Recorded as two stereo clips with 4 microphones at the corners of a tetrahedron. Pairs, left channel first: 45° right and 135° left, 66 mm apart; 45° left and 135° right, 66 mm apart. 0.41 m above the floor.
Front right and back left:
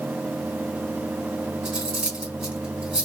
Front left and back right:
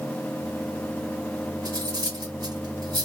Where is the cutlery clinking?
150° right, 1.7 m.